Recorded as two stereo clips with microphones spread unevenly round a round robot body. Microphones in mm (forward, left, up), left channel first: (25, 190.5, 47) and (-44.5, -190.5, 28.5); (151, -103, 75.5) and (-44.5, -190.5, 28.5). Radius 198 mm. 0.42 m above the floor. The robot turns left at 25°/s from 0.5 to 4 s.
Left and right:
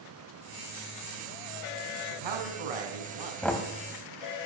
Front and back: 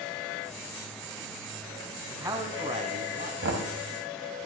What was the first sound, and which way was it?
A man speaking, 80° right.